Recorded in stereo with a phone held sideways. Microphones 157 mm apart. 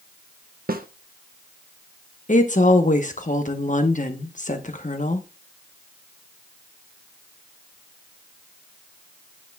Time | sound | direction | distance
0.7 | a snare drum | 70° right (ahead or behind) | 0.6 m
2.3 | a woman speaking | 55° left (ahead or behind) | 1.0 m